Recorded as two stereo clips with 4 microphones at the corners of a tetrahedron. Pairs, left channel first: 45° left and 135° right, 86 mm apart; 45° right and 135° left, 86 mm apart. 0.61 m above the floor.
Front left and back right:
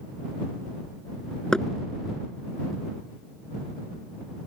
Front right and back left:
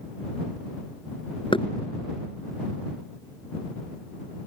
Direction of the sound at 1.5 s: 35° right.